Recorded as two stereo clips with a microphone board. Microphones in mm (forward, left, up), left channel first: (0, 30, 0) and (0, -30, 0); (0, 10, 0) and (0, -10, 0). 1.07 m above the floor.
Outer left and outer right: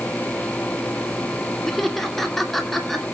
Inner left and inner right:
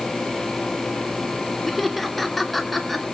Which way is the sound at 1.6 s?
5° left (ahead or behind).